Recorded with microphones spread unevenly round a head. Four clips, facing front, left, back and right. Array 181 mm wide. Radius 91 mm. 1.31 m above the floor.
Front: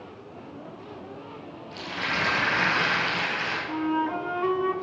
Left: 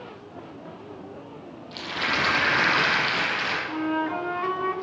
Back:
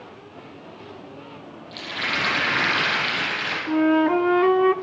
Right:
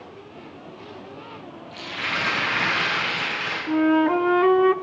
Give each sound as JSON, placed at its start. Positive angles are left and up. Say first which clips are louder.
{"t": 1.7, "sound": "a rattle", "louder": "left 2 dB, back 2 dB", "azimuth_deg": 105, "distance_m": 7.5}
{"t": 3.7, "sound": "a flute", "louder": "right 10 dB, back 9 dB", "azimuth_deg": -140, "distance_m": 0.6}